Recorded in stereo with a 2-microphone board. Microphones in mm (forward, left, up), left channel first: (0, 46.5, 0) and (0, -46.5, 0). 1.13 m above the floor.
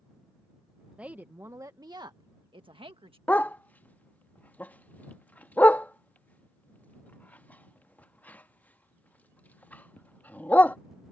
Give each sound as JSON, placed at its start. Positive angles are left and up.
{"t": 1.0, "sound": "a woman speaking", "side_deg": -15}
{"t": 3.3, "sound": "a dog barking", "side_deg": 15}